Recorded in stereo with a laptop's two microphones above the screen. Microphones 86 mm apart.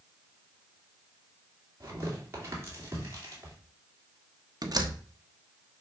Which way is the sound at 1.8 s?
35° right (ahead or behind).